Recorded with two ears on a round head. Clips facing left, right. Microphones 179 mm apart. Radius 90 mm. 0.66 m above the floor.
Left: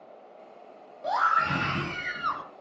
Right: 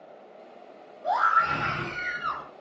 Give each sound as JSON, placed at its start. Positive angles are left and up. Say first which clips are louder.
{"t": 1.0, "sound": "a scream", "louder": "right 2 dB", "side_deg": 45, "distance_m": 5.0}